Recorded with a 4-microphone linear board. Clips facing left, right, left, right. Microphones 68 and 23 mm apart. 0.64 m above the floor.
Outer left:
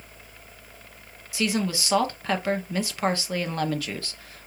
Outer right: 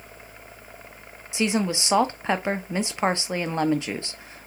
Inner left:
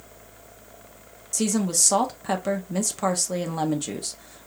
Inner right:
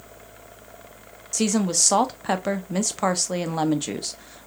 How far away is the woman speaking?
About 0.5 m.